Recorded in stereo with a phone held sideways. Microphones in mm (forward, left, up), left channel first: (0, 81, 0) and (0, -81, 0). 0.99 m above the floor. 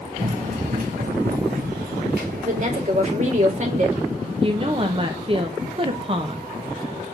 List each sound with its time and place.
0.2 s running footsteps: 50° right (ahead or behind), 1.8 m; by 2.9 s 70° right (ahead or behind), 4.5 m
2.5 s a woman speaking: 50° right (ahead or behind), 2 m
4.4 s a woman speaking: 35° right (ahead or behind), 0.8 m